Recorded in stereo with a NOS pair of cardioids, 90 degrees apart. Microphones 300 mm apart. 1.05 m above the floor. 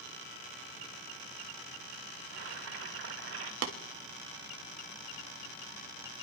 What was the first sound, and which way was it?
Boiling, 55° right.